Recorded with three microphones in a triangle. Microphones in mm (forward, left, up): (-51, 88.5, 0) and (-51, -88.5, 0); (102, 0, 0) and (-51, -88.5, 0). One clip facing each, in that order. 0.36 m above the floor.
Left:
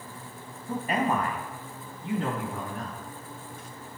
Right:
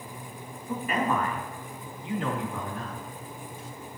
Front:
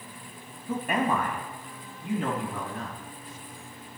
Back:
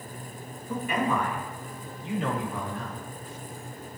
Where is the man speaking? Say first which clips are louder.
Left 1 dB, front 1 dB; 40° left, 2.0 m; by 3.0 s 55° left, 3 m.